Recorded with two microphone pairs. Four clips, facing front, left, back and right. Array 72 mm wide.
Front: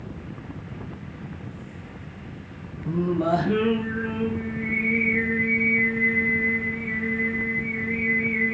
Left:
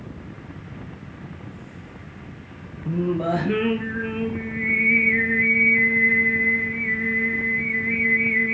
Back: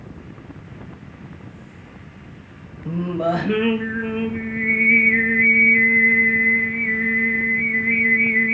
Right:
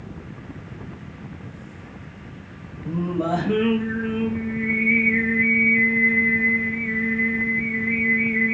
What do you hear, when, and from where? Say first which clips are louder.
2.9 s singing: left 1 dB, back 1 dB; 160° left, 5 m